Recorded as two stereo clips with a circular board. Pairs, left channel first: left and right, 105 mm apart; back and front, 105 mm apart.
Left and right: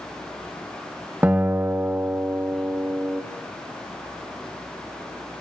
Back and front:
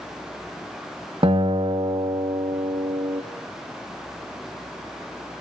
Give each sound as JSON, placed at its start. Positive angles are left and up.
{"t": 1.2, "sound": "a guitar", "azimuth_deg": -20, "distance_m": 1.5}